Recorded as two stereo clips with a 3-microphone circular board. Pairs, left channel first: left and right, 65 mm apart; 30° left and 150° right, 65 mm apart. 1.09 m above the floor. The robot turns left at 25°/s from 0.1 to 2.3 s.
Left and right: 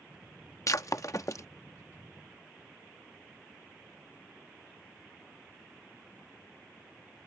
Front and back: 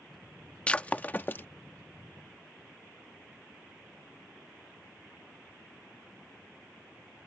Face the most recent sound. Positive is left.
turn(degrees=55)